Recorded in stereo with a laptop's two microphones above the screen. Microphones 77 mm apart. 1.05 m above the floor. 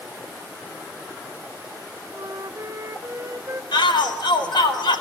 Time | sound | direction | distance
2.1 | a flute | 40° right (ahead or behind) | 1.0 m
3.7 | a shout | 80° left | 4.5 m